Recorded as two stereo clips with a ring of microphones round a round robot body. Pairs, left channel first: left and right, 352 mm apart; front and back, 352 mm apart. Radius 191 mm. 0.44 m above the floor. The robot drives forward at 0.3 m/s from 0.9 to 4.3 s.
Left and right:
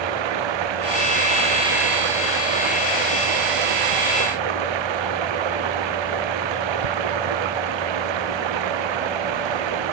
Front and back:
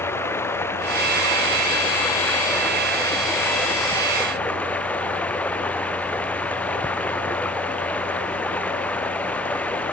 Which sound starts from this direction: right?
Running water, at 0.0 s.